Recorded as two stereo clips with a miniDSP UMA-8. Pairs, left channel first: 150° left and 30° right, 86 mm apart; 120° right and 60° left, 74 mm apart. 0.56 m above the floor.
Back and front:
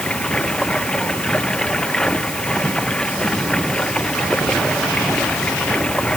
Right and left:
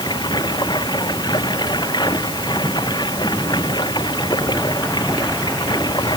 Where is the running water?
130° right.